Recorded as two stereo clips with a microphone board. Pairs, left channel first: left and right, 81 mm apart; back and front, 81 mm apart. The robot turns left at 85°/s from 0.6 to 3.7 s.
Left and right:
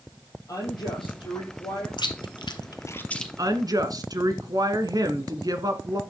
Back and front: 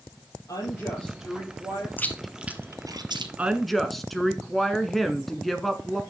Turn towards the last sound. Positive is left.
turn(degrees=-95)